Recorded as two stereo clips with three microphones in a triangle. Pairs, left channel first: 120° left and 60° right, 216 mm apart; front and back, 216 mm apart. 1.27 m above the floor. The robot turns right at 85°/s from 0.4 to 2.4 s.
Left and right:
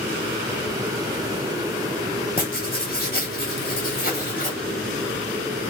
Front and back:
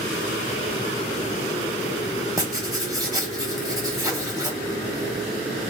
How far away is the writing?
About 0.9 m.